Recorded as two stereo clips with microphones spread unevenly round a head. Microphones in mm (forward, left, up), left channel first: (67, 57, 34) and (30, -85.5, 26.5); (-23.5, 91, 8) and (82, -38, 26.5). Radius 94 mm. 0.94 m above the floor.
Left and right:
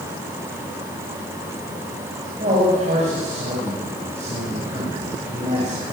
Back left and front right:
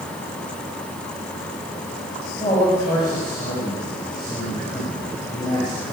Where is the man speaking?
160° right, 6.5 m.